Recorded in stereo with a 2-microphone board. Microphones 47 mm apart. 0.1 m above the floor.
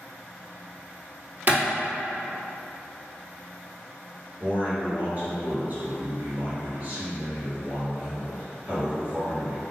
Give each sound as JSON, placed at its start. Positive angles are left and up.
{"t": 1.5, "sound": "a clap", "side_deg": -40, "distance_m": 1.7}
{"t": 4.4, "sound": "a man speaking", "side_deg": -35, "distance_m": 1.9}